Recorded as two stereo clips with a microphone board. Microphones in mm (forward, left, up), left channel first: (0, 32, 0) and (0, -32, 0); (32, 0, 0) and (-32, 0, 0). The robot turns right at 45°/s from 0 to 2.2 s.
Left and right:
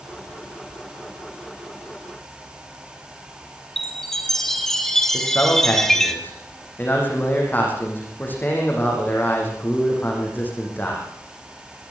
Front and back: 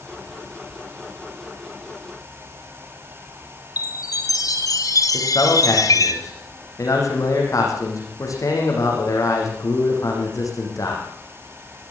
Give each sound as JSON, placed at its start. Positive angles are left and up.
{"t": 3.8, "sound": "a chime", "azimuth_deg": 5, "distance_m": 2.0}
{"t": 5.1, "sound": "a man speaking", "azimuth_deg": 30, "distance_m": 8.5}